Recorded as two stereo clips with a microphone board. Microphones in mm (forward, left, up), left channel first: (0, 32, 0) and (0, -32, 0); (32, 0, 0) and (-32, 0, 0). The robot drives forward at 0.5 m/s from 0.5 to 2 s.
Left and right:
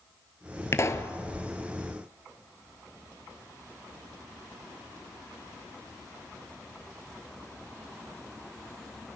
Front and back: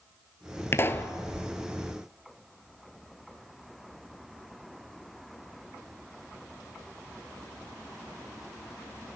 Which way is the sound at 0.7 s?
45° left.